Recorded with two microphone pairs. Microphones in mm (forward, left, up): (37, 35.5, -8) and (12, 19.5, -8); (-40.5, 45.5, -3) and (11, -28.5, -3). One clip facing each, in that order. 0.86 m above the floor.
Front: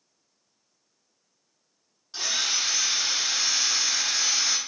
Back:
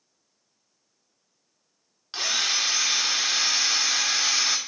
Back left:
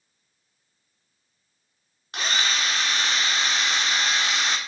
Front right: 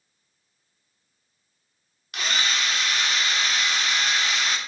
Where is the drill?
Straight behind, 0.8 m.